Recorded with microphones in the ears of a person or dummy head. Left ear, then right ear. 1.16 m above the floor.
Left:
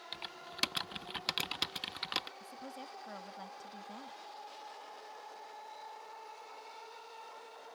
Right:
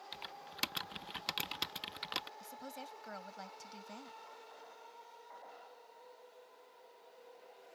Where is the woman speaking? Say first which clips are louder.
Left 1 dB; 30° right (ahead or behind).